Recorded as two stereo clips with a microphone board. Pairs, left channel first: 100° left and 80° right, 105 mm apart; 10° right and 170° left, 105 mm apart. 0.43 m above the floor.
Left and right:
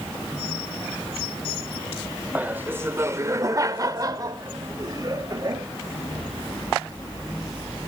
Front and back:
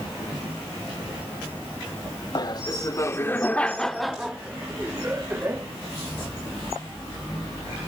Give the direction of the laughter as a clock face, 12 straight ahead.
12 o'clock.